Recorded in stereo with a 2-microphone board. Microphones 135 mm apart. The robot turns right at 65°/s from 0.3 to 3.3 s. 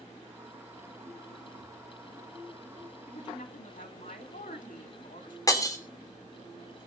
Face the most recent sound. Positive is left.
turn(degrees=25)  # may be behind; listen again after turning